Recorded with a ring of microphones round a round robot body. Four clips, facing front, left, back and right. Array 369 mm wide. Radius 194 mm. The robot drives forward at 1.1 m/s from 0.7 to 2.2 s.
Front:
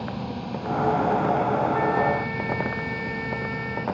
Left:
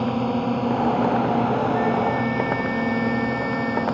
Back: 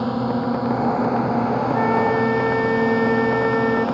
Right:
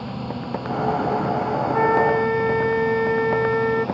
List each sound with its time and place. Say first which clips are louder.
0.0 s a drone: left 8 dB, back 10 dB; 145° left; by 4.0 s 160° left
1.7 s a flute: right 3 dB, back 4 dB; 105° right; by 3.9 s 135° right